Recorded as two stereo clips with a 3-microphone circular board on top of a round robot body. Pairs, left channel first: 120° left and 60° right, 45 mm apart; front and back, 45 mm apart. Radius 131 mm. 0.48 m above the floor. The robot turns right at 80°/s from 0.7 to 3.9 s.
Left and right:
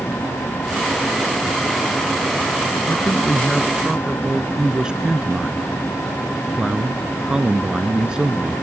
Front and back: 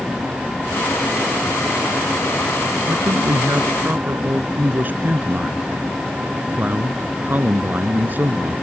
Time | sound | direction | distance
2.9 | a man speaking | 145° left | ?